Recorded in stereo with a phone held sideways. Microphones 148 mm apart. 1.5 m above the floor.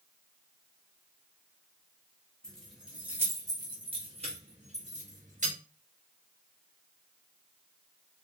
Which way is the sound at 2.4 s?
5° left (ahead or behind).